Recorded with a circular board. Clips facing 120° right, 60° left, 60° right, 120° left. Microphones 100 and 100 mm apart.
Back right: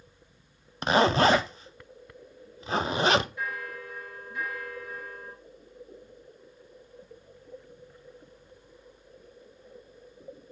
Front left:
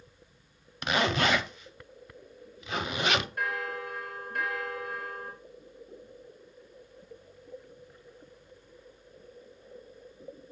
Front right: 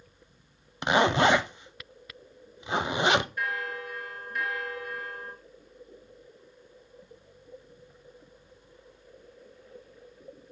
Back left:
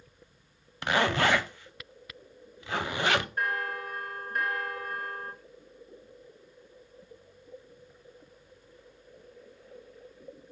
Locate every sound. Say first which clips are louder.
0.8 s a zipper: back right 6 dB, front right 4 dB; 110° right, 0.5 m
3.4 s a bell: front left 3 dB, back left 1 dB; 80° left, 2.5 m